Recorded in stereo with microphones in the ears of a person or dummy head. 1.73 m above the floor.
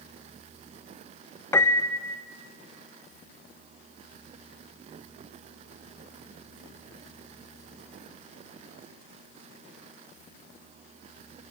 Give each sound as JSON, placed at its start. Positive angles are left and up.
{"t": 1.5, "sound": "a piano", "side_deg": 15, "distance_m": 0.5}